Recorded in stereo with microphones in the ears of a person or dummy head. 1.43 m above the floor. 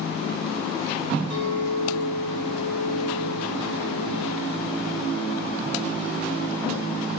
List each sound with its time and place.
1.3 s a clink: 75° right (ahead or behind), 2.5 m